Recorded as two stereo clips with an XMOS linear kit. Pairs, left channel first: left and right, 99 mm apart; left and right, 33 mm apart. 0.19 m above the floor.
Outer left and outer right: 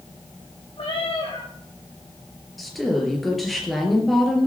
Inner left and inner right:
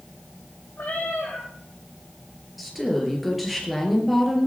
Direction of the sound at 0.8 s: 70° left (ahead or behind).